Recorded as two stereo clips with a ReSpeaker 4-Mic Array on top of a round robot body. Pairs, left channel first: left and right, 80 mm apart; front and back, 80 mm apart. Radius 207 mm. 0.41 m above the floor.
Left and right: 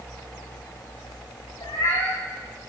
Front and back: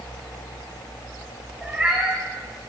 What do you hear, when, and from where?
1.6 s a cat meowing: 105° left, 3.5 m